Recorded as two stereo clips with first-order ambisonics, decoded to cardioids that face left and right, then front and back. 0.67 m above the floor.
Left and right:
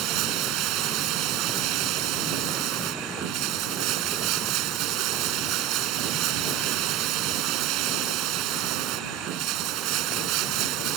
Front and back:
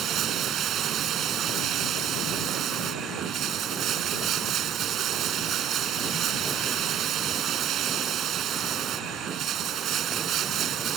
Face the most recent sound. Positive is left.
turn(degrees=-125)